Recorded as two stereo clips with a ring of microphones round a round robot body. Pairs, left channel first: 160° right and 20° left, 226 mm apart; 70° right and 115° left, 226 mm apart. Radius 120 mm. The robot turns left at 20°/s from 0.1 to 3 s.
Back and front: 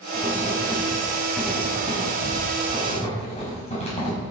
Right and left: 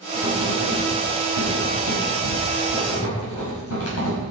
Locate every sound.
0.1 s writing: 35° right, 6.5 m; by 4.2 s 95° right, 6.5 m